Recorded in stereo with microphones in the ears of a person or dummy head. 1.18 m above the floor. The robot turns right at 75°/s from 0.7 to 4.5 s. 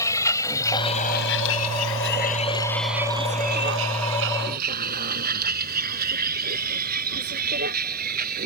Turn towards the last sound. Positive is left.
turn(degrees=-55)  # may be behind; listen again after turning